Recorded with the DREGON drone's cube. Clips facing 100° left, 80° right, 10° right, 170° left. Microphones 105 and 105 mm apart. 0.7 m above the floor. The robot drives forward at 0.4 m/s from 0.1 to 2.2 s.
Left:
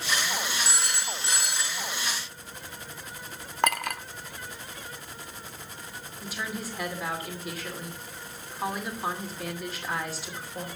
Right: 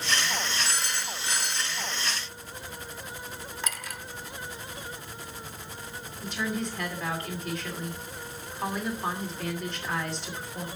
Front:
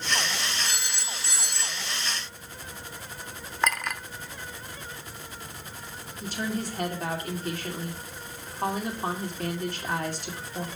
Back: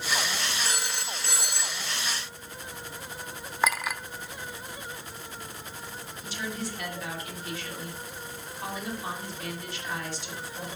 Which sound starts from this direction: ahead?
A woman speaking, at 6.2 s.